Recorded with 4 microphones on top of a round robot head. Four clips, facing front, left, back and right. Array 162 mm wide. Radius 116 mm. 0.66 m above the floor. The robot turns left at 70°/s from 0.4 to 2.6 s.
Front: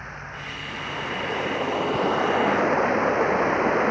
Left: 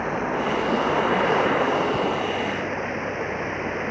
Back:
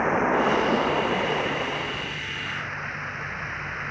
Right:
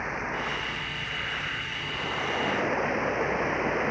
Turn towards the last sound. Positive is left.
turn(degrees=5)